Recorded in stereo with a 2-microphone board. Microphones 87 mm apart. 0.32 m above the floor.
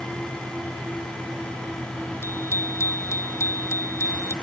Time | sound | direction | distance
2.2 | a bicycle bell | 30° left (ahead or behind) | ?